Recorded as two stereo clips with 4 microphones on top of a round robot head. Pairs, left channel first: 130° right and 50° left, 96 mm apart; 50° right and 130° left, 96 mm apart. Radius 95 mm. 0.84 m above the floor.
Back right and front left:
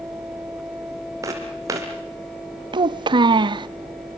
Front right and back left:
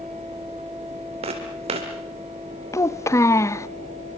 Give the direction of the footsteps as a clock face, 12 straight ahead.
8 o'clock.